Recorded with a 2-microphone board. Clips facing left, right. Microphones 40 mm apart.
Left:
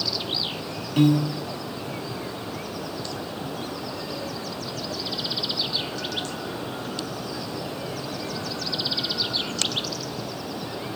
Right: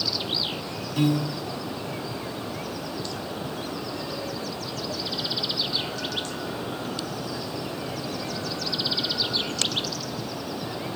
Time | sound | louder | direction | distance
1.0 | a piano | left 4 dB | 40° left (ahead or behind) | 0.6 m